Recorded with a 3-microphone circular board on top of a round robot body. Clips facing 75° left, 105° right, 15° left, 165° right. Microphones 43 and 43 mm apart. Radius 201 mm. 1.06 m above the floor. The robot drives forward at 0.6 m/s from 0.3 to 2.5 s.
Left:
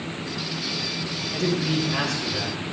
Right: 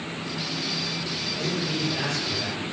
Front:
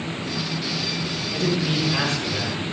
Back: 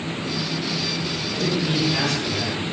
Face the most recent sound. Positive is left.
turn(degrees=90)